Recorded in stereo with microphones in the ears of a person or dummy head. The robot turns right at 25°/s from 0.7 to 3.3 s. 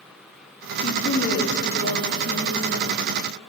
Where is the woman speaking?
55° left, 2.5 m; by 3.0 s 110° left, 2.5 m.